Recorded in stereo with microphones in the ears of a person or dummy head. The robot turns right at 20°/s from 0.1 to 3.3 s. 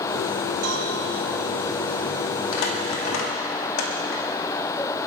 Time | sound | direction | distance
0.6 | a cowbell | 40° right (ahead or behind) | 1.9 m
2.5 | crumpling | 75° left (ahead or behind) | 2.5 m